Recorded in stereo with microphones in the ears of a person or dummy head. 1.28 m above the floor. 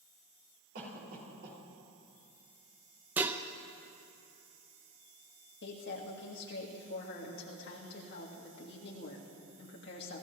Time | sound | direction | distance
0.8 | a cough | 60° right (ahead or behind) | 4.5 m
3.2 | dishes clattering | 10° right (ahead or behind) | 0.6 m
5.6 | a woman speaking | 60° left (ahead or behind) | 2 m